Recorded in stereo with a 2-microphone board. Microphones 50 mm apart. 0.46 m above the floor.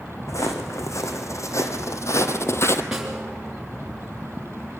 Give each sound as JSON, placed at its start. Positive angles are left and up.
{"t": 0.3, "sound": "footsteps", "side_deg": 80, "distance_m": 2.0}
{"t": 2.9, "sound": "a snare drum", "side_deg": -10, "distance_m": 3.0}